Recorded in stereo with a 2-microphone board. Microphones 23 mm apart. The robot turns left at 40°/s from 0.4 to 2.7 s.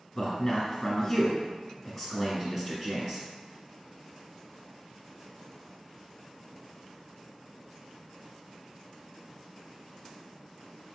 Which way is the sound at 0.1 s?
15° left (ahead or behind).